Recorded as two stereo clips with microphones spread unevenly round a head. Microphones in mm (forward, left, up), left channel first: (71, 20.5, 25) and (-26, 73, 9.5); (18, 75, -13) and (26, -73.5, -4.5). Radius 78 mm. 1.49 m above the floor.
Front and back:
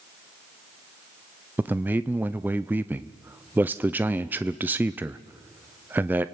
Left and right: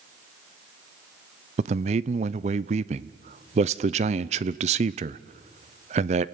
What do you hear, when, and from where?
1.6 s a man speaking: 135° right, 0.6 m